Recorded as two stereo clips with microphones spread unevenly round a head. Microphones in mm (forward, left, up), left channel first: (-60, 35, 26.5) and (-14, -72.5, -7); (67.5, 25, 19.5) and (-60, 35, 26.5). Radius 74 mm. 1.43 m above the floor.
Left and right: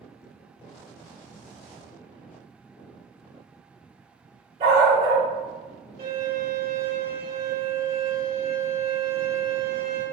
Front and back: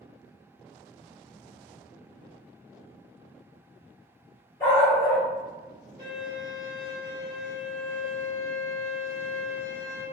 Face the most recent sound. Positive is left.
turn(degrees=-110)